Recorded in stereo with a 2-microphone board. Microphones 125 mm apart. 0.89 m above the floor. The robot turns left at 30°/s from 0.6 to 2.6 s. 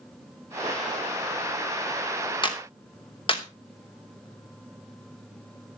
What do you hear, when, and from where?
2.4 s a clap: 35° left (ahead or behind), 2.5 m; by 3.4 s 40° left (ahead or behind), 2.5 m